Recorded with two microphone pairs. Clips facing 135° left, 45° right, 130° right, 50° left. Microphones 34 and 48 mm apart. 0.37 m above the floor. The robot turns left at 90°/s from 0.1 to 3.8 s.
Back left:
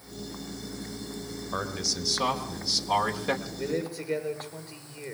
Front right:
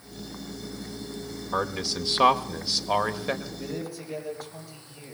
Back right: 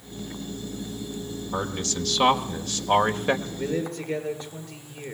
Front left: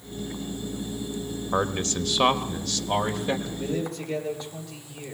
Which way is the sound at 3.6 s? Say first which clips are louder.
Back left 4 dB, back right 1 dB; 155° right.